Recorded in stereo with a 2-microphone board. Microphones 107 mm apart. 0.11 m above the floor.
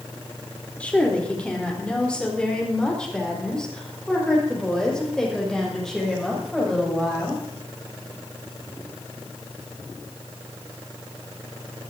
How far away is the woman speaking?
About 3.5 m.